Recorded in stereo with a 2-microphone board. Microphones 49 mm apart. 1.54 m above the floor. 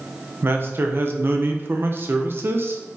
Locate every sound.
0.4 s a man speaking: 45° right (ahead or behind), 0.9 m